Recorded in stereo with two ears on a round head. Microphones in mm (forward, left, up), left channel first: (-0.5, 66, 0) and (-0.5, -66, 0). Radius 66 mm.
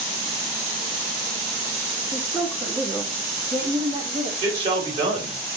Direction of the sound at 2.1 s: Centre (ahead or behind).